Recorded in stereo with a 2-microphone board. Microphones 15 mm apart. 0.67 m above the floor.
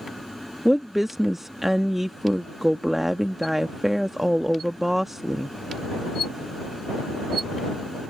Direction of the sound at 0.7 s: 15° right (ahead or behind).